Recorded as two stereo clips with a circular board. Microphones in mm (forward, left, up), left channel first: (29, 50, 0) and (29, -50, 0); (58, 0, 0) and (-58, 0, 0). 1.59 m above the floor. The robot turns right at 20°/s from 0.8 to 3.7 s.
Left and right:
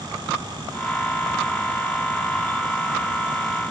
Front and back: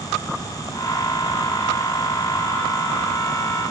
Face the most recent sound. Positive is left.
No sound to turn to.